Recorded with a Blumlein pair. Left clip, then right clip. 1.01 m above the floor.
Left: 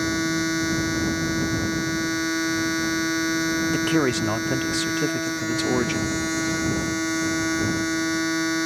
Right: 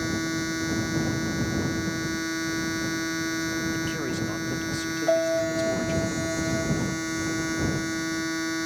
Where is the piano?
55° right.